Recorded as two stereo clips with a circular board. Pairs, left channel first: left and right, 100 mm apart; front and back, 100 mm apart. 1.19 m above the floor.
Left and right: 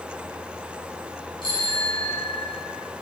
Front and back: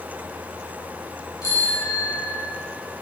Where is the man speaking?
I don't hear a man speaking.